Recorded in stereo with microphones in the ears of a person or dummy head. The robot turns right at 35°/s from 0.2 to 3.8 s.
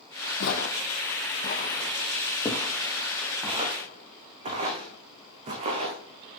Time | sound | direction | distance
0.4 | footsteps | 65° left (ahead or behind) | 3 m